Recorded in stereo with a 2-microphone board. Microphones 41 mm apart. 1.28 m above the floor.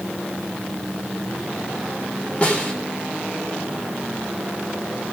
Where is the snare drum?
30° left (ahead or behind), 3.5 m.